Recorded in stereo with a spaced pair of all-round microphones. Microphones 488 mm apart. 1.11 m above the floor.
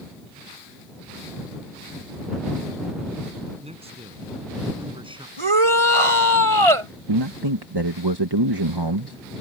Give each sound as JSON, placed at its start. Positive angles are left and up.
{"t": 3.6, "sound": "a man speaking", "side_deg": -10}
{"t": 5.4, "sound": "a shout", "side_deg": -85}
{"t": 7.1, "sound": "a man speaking", "side_deg": -55}